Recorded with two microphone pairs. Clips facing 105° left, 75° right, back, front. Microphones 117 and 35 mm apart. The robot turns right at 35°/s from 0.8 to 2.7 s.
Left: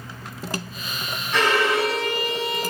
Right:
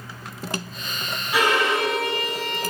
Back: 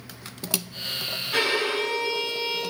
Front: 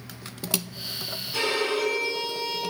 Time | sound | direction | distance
1.3 | a violin | 155° right | 3.5 m